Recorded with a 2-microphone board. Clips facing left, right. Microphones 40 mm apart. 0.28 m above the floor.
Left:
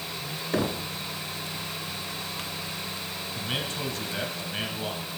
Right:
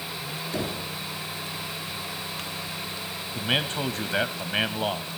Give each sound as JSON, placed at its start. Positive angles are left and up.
{"t": 0.5, "sound": "knocking", "side_deg": 40, "distance_m": 2.0}
{"t": 3.4, "sound": "a man speaking", "side_deg": -45, "distance_m": 1.2}